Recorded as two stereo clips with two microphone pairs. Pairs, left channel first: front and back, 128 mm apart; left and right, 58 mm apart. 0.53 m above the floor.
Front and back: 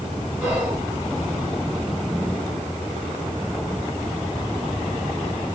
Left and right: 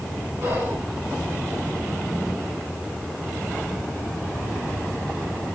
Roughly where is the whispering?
Right.